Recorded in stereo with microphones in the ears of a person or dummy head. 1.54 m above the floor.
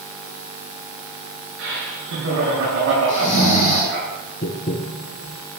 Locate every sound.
1.6 s laughter: 85° right, 8.5 m; by 4.1 s 70° right (ahead or behind), 9 m
3.1 s snoring: 45° left (ahead or behind), 7.5 m
4.4 s tapping: 35° left (ahead or behind), 0.9 m